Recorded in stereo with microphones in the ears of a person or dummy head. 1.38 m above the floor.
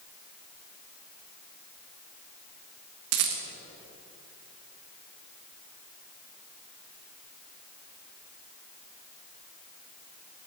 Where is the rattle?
55° right (ahead or behind), 1.1 m.